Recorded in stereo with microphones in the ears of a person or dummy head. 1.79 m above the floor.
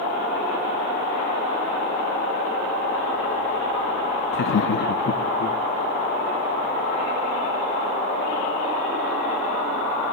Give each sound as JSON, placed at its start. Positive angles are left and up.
{"t": 4.3, "sound": "laughter", "side_deg": 50, "distance_m": 0.8}